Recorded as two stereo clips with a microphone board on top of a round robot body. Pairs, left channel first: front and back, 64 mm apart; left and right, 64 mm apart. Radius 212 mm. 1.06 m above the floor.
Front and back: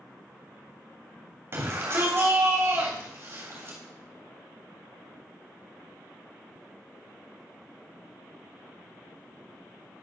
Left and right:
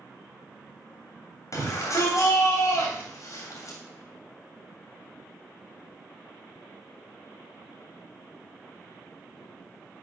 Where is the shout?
130° left, 3 m.